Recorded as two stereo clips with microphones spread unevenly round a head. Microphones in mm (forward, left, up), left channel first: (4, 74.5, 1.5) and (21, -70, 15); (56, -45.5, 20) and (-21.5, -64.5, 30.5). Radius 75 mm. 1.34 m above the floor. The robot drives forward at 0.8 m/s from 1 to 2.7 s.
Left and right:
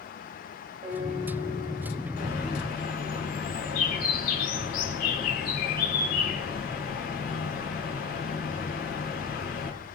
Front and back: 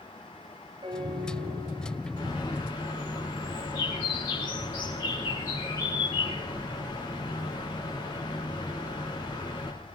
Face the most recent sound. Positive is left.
turn(degrees=75)